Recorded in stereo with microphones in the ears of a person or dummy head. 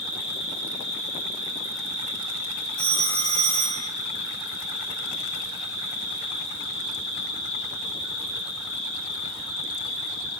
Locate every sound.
0.0 s an insect: 80° right, 1.5 m
2.8 s a phone ringing: 15° left (ahead or behind), 1.1 m